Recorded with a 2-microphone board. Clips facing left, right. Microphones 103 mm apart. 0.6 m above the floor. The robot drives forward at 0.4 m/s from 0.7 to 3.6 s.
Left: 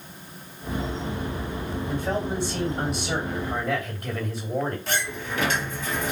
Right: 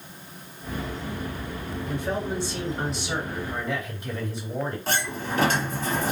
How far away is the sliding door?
About 0.7 m.